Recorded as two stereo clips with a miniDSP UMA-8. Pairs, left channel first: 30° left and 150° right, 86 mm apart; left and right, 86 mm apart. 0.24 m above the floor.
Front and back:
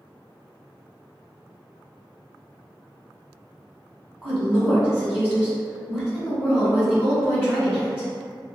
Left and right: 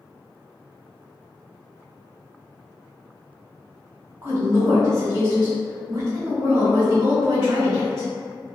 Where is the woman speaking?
75° right, 1.9 m.